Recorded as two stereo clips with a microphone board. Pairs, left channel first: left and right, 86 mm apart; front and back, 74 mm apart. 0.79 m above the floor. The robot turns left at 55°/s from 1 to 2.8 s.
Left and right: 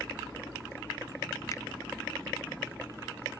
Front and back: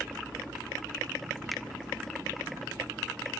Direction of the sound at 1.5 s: 90° left.